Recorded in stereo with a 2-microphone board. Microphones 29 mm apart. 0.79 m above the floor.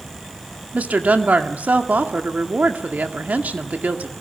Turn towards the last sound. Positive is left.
turn(degrees=-55)  # may be behind; listen again after turning